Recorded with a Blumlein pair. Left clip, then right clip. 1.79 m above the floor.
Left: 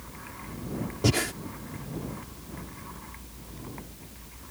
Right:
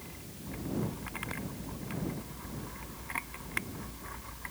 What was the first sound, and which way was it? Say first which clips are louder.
Breathing: left 13 dB; 45° left.